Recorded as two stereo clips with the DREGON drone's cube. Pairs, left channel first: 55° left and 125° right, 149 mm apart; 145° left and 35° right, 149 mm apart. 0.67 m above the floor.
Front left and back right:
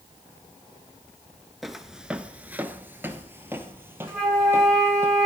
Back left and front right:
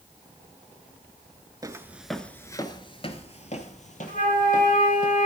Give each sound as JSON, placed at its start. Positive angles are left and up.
{"t": 1.6, "sound": "footsteps", "azimuth_deg": -35, "distance_m": 0.6}
{"t": 4.1, "sound": "a flute", "azimuth_deg": 145, "distance_m": 5.0}